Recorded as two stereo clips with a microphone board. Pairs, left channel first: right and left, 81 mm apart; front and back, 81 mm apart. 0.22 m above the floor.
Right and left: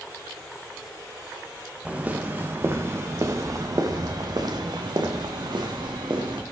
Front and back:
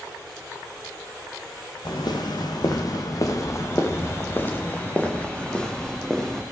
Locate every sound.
1.9 s footsteps: 20° left, 1.8 m; by 6.4 s 85° left, 2.5 m